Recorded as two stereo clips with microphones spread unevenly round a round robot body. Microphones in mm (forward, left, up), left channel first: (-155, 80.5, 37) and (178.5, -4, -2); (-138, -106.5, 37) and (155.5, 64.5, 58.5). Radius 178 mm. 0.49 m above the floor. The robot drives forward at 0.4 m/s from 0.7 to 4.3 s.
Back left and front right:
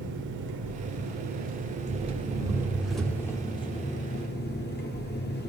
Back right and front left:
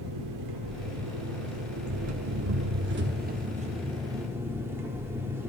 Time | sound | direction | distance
0.0 | an engine running | 30° left | 1.6 m